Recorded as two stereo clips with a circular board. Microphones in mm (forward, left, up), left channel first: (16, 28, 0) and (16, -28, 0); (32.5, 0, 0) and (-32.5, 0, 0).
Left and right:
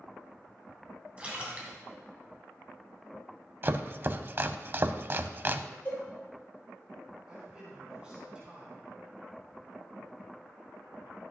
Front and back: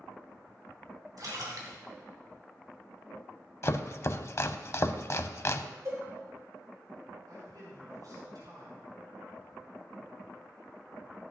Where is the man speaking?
165° right, 4.5 m.